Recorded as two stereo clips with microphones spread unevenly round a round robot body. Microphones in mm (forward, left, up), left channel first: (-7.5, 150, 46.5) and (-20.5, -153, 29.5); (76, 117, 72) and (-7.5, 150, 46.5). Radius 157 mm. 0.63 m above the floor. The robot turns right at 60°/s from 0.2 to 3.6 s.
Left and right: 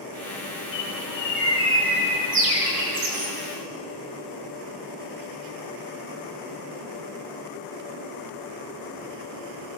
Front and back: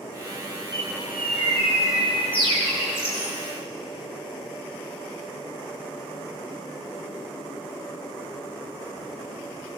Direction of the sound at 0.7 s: 115° left.